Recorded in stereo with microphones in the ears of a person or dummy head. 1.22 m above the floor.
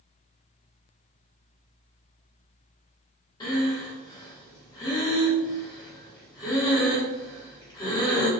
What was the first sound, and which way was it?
Breathing, 25° left (ahead or behind).